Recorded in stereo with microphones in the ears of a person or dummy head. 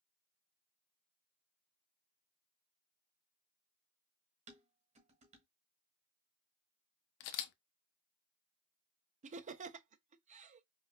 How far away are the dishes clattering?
About 1.3 m.